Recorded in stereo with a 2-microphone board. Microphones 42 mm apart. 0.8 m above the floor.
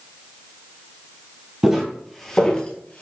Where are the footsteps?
15° right (ahead or behind), 1.1 m; by 3.0 s 40° left (ahead or behind), 1.0 m.